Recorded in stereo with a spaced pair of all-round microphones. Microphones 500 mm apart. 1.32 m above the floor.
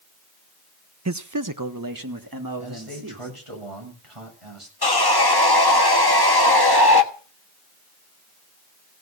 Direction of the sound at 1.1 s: 30° right (ahead or behind).